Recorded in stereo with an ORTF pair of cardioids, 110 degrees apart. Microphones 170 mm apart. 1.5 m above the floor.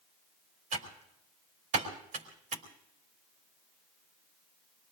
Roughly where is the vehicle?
I don't hear a vehicle.